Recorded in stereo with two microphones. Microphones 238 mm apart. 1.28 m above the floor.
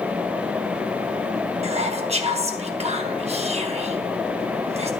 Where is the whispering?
25° right (ahead or behind), 0.6 m.